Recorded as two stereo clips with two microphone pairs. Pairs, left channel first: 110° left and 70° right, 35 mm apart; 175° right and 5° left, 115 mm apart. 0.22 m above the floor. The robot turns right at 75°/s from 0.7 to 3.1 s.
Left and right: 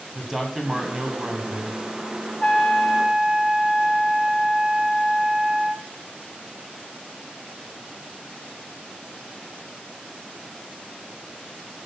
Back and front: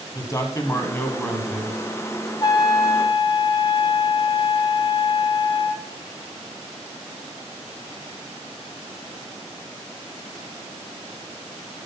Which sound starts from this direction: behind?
A trumpet, at 2.4 s.